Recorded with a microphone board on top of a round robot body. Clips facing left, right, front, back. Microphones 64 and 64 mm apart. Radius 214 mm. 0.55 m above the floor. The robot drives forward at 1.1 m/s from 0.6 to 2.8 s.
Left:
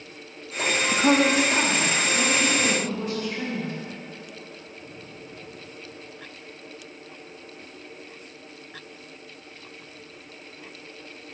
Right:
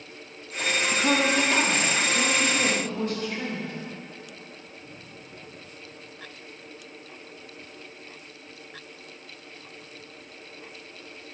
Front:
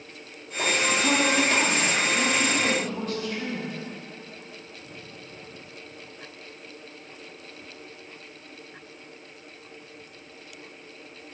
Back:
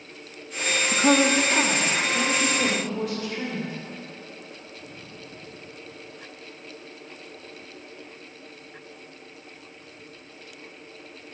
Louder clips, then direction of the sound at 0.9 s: Left 4 dB, back 6 dB; 135° left.